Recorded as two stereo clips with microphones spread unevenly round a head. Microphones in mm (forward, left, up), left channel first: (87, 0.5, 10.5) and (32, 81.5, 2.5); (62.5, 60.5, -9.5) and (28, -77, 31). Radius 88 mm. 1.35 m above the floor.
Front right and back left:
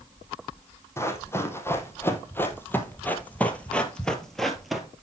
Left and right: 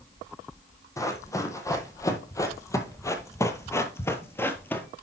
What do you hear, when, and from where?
1.0 s running footsteps: straight ahead, 2.5 m; by 4.9 s 135° right, 1.3 m